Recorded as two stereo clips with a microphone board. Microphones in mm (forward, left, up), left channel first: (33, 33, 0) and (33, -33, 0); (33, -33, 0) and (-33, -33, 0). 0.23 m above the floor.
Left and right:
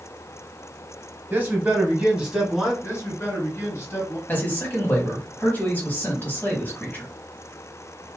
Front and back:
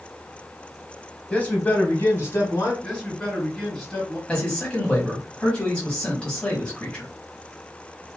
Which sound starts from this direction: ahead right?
A man speaking, at 1.3 s.